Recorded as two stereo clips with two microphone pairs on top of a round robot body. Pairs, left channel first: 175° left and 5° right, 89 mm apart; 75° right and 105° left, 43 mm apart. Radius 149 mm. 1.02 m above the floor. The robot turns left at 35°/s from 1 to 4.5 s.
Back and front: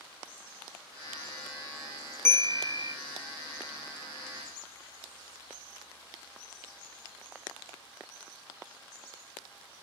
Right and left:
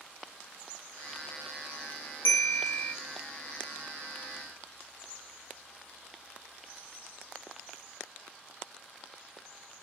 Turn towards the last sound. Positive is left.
turn(degrees=165)